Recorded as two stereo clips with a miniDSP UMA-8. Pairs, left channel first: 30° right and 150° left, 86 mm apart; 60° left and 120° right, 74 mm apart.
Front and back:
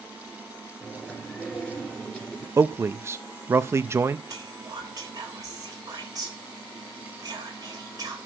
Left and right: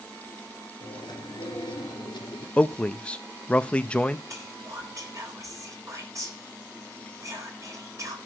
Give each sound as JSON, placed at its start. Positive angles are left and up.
{"t": 0.8, "sound": "chewing", "azimuth_deg": 50, "distance_m": 2.5}
{"t": 2.6, "sound": "a man speaking", "azimuth_deg": 125, "distance_m": 0.6}
{"t": 4.3, "sound": "whispering", "azimuth_deg": -165, "distance_m": 4.0}